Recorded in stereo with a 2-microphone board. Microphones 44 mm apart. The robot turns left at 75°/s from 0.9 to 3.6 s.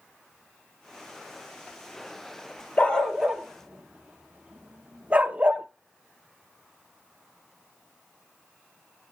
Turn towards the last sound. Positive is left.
turn(degrees=-25)  # may be behind; listen again after turning